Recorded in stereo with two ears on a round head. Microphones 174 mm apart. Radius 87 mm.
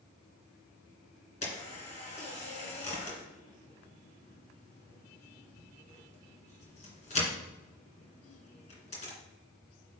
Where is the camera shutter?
35° left (ahead or behind), 2.5 m.